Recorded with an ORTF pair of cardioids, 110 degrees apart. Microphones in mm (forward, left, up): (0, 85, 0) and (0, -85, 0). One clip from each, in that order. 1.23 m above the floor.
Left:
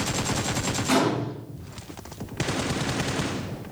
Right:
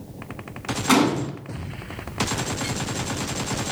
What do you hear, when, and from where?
0.9 s a gunshot: 55° right, 2.5 m